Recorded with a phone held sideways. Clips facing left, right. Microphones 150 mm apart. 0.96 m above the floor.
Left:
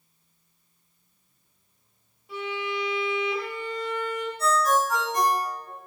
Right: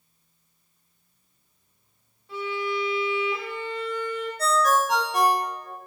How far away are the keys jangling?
I don't hear keys jangling.